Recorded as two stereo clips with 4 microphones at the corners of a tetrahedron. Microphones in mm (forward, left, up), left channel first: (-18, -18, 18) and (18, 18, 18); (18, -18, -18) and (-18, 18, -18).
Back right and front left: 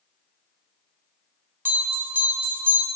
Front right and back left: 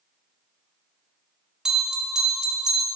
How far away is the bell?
About 1.2 m.